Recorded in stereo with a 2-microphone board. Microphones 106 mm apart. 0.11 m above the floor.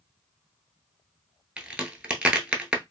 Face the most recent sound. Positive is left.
turn(degrees=-10)  # may be behind; listen again after turning